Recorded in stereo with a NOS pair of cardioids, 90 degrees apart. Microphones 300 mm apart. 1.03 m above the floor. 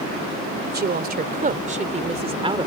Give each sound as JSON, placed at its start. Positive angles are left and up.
{"t": 0.7, "sound": "a woman speaking", "azimuth_deg": -35}